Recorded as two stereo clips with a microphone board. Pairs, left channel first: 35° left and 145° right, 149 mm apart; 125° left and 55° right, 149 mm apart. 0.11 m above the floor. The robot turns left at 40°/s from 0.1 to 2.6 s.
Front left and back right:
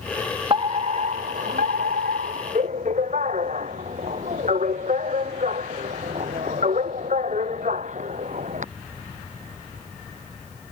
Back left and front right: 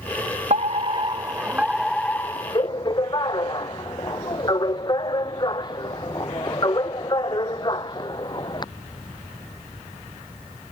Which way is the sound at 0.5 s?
90° right.